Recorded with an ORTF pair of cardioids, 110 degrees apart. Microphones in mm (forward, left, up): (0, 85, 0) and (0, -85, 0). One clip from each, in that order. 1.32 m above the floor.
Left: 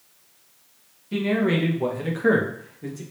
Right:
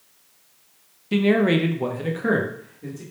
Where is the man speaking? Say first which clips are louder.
Right 4 dB; 45° right, 0.8 m; by 3.0 s 20° left, 1.3 m.